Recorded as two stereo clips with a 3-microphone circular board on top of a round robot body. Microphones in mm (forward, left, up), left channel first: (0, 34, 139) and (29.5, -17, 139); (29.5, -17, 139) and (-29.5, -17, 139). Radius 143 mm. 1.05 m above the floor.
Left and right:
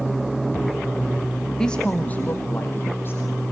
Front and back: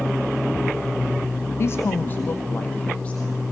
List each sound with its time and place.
1.6 s a woman speaking: 40° left, 1.1 m; by 3.4 s 75° left, 3 m